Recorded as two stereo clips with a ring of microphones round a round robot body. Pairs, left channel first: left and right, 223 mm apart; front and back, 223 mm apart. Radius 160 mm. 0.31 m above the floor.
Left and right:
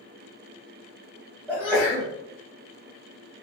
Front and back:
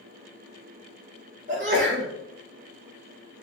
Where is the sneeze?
165° right, 1.0 m.